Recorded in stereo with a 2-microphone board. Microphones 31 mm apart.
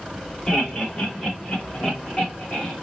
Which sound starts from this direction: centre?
Laughter, at 0.5 s.